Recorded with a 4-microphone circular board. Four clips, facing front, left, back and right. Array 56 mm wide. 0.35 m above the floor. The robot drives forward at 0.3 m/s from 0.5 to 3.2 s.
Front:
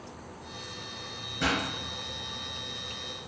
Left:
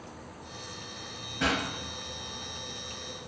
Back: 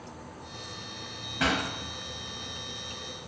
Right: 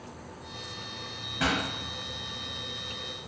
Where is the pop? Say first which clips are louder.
Even, back 1 dB; 155° right, 1.3 m.